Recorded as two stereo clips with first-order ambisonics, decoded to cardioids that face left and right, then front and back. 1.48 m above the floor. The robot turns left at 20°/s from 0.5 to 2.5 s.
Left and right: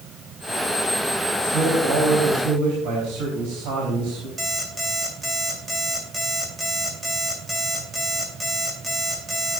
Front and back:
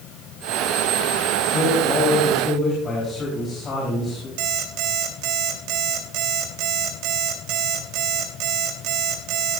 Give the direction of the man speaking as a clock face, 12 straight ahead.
1 o'clock.